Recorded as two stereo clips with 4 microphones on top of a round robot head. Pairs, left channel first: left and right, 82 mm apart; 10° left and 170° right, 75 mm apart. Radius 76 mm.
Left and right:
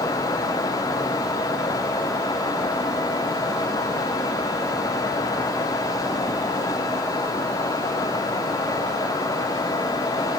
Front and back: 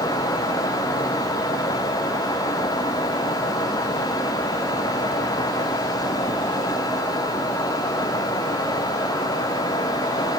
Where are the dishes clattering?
No dishes clattering in this recording.